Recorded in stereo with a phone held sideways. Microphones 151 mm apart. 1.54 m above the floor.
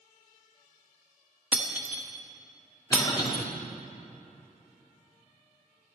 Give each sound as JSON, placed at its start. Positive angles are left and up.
{"t": 1.5, "sound": "breaking glass", "side_deg": -10, "distance_m": 1.2}
{"t": 2.9, "sound": "a cough", "side_deg": 25, "distance_m": 4.0}